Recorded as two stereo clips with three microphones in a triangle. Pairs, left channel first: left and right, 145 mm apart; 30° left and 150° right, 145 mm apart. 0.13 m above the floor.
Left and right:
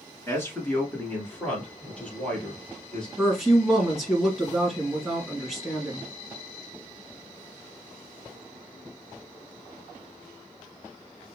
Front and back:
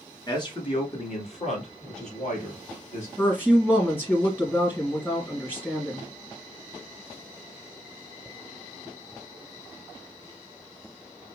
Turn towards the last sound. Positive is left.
turn(degrees=-10)